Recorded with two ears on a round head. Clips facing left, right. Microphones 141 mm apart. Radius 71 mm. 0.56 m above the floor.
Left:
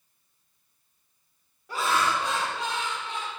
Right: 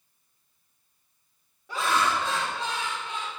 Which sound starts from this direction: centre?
Laughter, at 1.7 s.